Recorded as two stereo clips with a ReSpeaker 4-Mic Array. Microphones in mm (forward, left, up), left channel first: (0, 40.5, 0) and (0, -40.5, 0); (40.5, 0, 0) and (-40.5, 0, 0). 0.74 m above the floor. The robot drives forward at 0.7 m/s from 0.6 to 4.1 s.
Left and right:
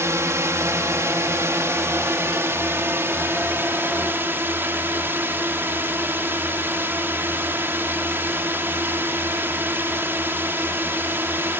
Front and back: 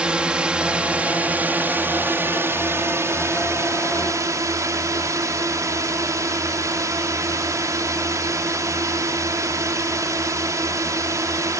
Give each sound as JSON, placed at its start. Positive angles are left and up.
{"t": 0.0, "sound": "a drone", "azimuth_deg": -110}